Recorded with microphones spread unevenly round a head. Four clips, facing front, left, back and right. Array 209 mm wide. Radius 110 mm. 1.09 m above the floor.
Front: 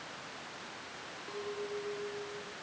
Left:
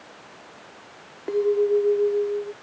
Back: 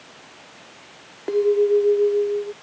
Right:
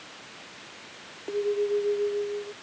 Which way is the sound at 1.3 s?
155° left.